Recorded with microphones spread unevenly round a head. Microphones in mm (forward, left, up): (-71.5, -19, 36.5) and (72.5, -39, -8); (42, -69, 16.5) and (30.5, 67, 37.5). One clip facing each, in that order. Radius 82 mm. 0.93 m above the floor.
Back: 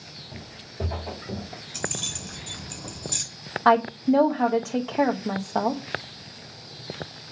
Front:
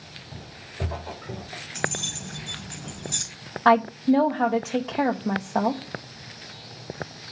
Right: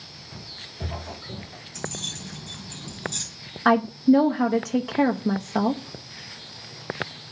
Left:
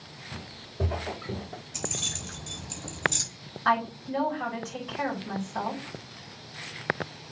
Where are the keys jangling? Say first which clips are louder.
Front 3 dB, right 3 dB; 130° left, 5 m.